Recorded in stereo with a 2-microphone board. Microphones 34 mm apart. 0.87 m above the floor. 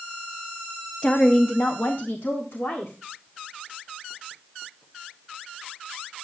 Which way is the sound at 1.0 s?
25° left (ahead or behind).